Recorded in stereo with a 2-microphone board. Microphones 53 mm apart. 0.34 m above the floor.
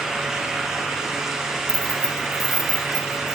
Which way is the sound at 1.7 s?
15° left (ahead or behind).